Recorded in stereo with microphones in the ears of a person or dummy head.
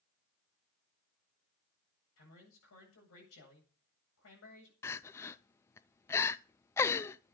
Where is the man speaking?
85° left, 8 m.